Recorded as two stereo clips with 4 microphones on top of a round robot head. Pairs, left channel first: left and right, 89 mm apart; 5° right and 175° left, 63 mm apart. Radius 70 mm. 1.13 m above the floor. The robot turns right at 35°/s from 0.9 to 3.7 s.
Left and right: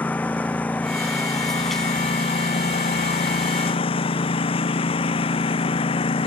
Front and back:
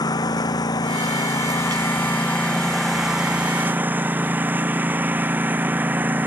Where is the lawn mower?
15° left; by 6.3 s 110° left.